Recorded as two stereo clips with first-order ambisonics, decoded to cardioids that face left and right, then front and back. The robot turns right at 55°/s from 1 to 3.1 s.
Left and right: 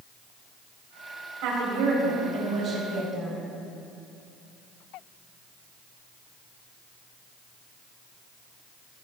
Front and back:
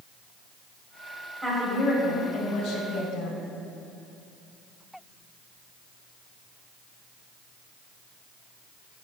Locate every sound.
1.4 s a woman speaking: 100° right, 4 m; by 3.4 s 5° right, 4 m